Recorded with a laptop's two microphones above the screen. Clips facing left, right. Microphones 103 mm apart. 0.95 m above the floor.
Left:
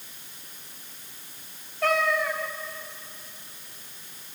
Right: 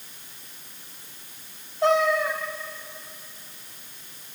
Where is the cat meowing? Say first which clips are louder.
Right 4 dB; 25° right (ahead or behind), 2 m.